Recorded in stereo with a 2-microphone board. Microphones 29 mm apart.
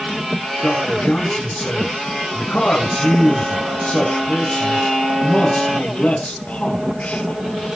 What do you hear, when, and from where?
0.6 s a man speaking: 70° left (ahead or behind), 6.5 m